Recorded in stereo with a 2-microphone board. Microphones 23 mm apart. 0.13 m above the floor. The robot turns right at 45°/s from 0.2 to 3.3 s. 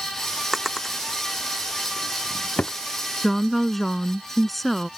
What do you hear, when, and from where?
0.5 s a drawer: 10° right (ahead or behind); by 2.8 s 80° left
3.2 s a woman speaking: 5° left (ahead or behind)